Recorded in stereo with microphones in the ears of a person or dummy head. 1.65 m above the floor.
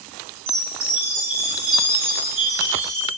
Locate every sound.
0.5 s a chime: 35° right (ahead or behind), 1.4 m